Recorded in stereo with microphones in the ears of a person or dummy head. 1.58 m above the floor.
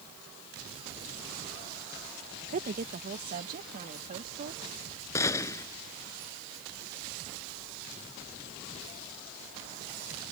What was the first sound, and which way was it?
A woman speaking, 45° right (ahead or behind).